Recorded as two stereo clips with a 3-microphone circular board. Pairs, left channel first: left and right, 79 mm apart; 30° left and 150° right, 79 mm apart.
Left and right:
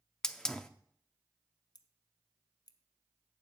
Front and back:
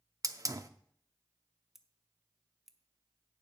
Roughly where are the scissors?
Behind left.